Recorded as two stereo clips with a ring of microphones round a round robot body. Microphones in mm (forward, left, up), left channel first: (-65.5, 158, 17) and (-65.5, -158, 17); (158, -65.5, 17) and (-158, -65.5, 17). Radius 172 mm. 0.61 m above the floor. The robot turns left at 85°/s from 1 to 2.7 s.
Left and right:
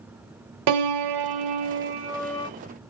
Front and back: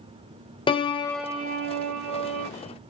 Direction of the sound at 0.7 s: 75° right.